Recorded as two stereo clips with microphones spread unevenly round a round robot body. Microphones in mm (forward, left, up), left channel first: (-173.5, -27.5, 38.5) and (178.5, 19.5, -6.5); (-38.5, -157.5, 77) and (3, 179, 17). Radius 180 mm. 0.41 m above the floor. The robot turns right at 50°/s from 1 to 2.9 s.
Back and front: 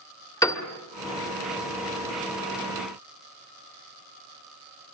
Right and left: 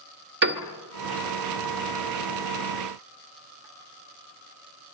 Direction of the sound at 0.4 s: 105° left.